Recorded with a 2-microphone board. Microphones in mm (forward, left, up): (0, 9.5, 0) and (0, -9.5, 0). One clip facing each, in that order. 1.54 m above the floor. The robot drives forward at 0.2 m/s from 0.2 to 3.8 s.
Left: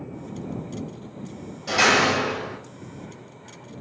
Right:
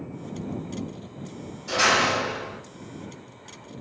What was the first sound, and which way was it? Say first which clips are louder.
A door slam: left 2 dB; 70° left (ahead or behind).